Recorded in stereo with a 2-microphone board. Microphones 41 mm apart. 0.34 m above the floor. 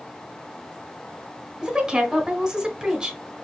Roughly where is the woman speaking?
Centre.